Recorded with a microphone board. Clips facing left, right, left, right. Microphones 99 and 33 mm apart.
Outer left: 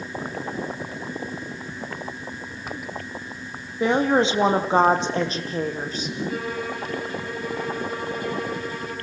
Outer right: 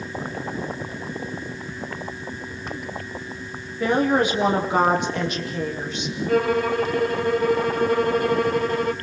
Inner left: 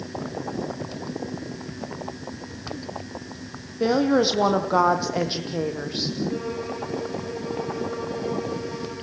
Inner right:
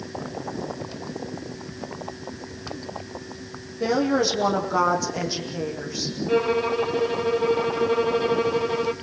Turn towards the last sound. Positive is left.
turn(degrees=-60)  # may be behind; listen again after turning